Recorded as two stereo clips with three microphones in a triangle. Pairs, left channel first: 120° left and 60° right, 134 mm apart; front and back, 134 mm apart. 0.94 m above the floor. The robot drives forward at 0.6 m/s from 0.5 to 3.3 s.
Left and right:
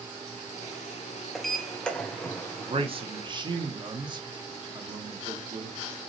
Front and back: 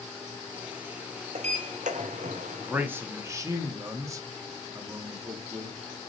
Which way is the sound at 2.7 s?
100° right.